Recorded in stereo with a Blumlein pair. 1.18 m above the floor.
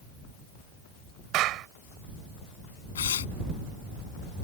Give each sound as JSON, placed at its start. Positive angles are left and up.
{"t": 1.3, "sound": "a clap", "azimuth_deg": -35}
{"t": 3.0, "sound": "tearing paper", "azimuth_deg": 65}